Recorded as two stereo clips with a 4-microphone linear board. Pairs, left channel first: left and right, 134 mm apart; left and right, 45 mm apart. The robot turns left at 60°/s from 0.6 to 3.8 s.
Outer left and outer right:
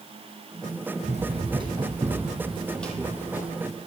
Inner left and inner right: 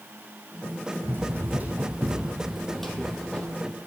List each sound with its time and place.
1.0 s running footsteps: 55° right (ahead or behind), 3.5 m; by 3.5 s 25° left (ahead or behind), 2.5 m